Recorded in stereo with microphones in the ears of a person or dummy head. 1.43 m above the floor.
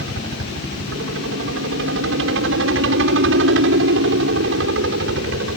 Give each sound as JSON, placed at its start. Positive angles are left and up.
{"t": 0.0, "sound": "a helicopter", "side_deg": -65}